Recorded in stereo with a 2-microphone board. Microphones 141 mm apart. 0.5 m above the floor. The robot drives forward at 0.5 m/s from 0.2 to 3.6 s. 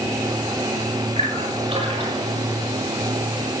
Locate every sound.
1.2 s a splash: 55° right (ahead or behind), 7 m; by 2.3 s 50° right (ahead or behind), 7.5 m